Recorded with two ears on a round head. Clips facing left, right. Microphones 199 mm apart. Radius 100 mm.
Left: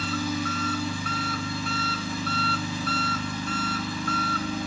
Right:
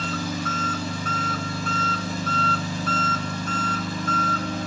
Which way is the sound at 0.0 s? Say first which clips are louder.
Even; 35° right (ahead or behind).